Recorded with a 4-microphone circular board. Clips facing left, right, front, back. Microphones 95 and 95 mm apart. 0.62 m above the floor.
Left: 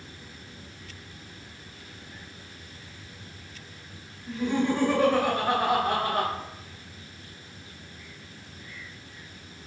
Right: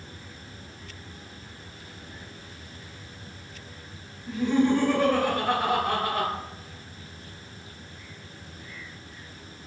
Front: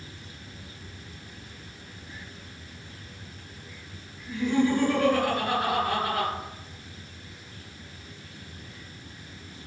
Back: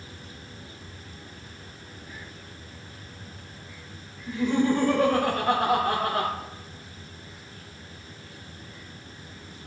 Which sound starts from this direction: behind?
Laughter, at 4.3 s.